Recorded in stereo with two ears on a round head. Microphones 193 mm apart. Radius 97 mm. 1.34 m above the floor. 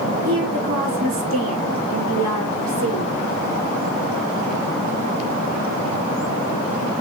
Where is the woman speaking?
70° right (ahead or behind), 2 m.